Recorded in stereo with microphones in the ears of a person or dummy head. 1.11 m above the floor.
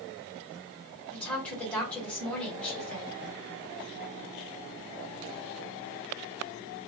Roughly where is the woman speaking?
Centre.